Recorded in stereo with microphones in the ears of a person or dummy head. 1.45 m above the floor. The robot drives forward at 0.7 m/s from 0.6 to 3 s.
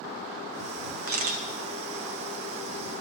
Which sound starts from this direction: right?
A camera shutter, at 1.1 s.